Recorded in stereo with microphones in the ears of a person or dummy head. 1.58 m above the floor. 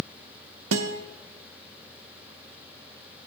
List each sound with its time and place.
0.7 s a guitar: 75° right (ahead or behind), 0.7 m